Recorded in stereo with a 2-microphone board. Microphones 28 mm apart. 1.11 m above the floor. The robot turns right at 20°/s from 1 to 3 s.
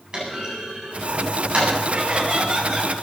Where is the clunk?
35° right (ahead or behind), 8.5 m; by 1.7 s 50° right (ahead or behind), 8.5 m.